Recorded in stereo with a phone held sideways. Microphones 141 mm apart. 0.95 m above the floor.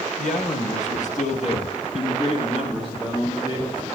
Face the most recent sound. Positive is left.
turn(degrees=30)  # may be behind; listen again after turning